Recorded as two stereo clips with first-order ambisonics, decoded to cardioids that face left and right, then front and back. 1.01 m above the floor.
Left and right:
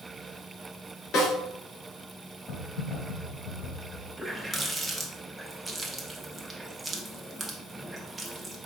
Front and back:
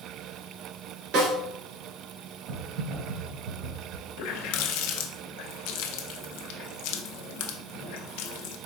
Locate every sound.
1.1 s a snare drum: 145° left, 2.0 m
2.5 s typing on a keyboard: 155° left, 1.6 m
4.2 s a running tap: 10° right, 0.5 m